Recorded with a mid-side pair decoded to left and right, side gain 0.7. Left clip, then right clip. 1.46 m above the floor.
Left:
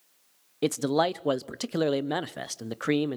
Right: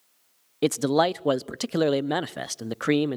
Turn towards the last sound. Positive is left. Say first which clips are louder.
# right 3 dB
turn(degrees=-15)